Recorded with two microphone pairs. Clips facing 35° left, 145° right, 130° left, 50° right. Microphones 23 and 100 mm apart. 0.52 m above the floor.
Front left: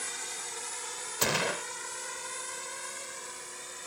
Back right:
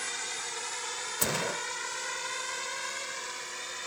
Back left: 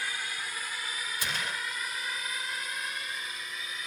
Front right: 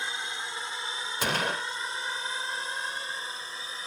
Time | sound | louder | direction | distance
0.0 | a drone | back right 3 dB, front right 1 dB | 90° right | ?
1.2 | a gunshot | front left 3 dB, front right 8 dB | 25° right | ?